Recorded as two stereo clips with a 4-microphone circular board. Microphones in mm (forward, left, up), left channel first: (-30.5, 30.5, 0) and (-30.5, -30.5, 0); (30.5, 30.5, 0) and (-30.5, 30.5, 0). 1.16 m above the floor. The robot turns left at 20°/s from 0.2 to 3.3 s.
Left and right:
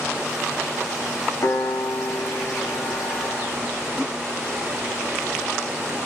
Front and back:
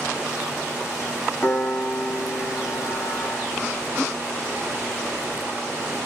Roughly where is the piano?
Left.